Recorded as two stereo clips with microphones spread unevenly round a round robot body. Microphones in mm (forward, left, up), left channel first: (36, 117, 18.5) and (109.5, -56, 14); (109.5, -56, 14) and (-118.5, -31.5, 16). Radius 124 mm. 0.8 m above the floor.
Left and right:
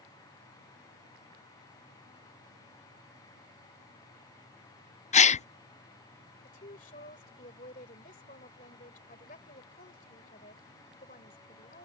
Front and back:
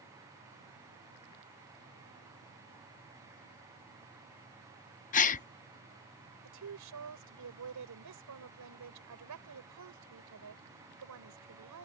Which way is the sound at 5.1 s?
55° left.